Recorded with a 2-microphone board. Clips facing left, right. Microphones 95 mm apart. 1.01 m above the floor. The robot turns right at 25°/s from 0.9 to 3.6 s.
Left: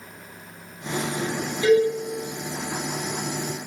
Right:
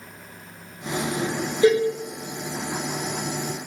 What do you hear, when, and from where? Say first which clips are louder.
1.6 s a cowbell: even; 30° right (ahead or behind), 0.8 m; by 1.9 s 25° right (ahead or behind), 0.8 m